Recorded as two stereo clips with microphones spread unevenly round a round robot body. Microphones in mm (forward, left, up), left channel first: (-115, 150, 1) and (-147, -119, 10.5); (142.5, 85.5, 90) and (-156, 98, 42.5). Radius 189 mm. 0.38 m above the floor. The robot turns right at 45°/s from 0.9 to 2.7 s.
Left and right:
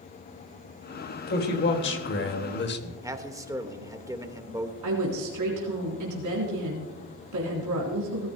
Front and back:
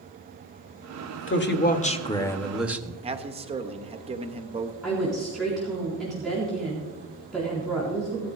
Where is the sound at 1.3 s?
40° left, 1.6 m; by 2.9 s 105° left, 1.6 m.